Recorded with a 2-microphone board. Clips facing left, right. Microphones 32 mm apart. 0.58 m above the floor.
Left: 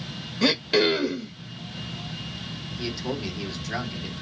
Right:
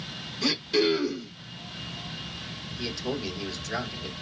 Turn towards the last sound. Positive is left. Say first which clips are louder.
# left 1 dB
turn(degrees=10)  # may be behind; listen again after turning